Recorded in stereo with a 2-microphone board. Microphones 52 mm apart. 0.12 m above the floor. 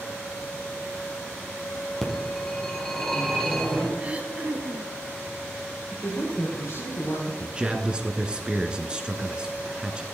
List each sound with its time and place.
2.0 s a phone ringing: 5° left (ahead or behind), 2.5 m
4.0 s throat clearing: 30° right (ahead or behind), 1.2 m
5.9 s a man speaking: 60° left (ahead or behind), 5 m
7.4 s a man speaking: 20° right (ahead or behind), 1.3 m